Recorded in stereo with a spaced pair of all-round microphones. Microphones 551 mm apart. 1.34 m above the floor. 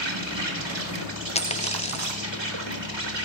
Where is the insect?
50° right (ahead or behind), 3 m.